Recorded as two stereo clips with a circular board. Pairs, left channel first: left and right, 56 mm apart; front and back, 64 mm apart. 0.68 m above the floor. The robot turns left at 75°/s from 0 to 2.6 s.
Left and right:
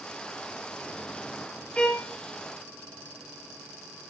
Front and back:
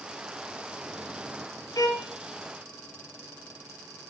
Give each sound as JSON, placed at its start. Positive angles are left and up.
{"t": 1.8, "sound": "a violin", "azimuth_deg": 20, "distance_m": 2.5}